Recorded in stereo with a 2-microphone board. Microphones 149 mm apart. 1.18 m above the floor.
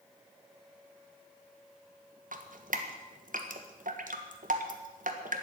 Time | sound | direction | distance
2.3 | dripping | 65° right (ahead or behind) | 1.4 m